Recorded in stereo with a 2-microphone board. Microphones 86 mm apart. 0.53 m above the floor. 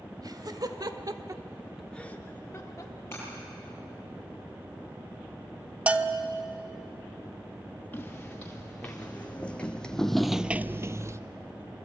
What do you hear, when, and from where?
0.2 s laughter: 50° right (ahead or behind), 2.5 m; by 3.0 s 40° left (ahead or behind), 2 m
3.1 s breaking glass: 30° left (ahead or behind), 9.5 m
5.9 s a bell: 15° right (ahead or behind), 0.9 m
7.9 s footsteps: 20° left (ahead or behind), 3.5 m; by 11.2 s 35° right (ahead or behind), 0.8 m